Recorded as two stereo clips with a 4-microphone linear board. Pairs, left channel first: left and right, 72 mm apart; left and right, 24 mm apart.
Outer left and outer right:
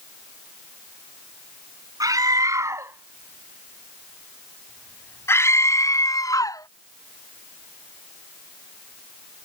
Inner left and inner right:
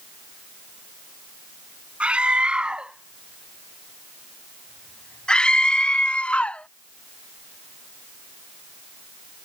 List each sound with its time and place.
2.0 s a scream: 60° right (ahead or behind); by 6.7 s 60° left (ahead or behind)